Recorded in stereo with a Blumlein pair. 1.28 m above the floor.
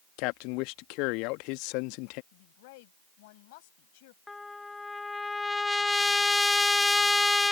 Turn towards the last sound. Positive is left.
turn(degrees=10)